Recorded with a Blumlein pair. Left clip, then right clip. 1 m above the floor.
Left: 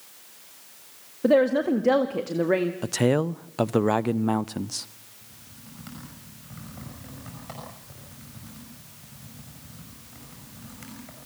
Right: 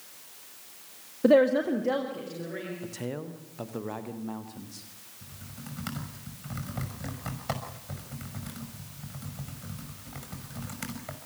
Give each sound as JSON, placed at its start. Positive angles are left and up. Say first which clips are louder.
{"t": 1.2, "sound": "a woman speaking", "louder": "left 1 dB", "azimuth_deg": 0, "distance_m": 1.5}
{"t": 2.8, "sound": "a man speaking", "louder": "left 13 dB", "azimuth_deg": 35, "distance_m": 0.6}
{"t": 5.2, "sound": "typing on a keyboard", "louder": "right 3 dB", "azimuth_deg": -65, "distance_m": 6.0}